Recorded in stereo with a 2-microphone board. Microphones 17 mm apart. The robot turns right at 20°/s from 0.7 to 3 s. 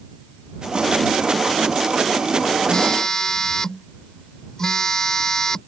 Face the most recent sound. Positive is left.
turn(degrees=35)  # may be behind; listen again after turning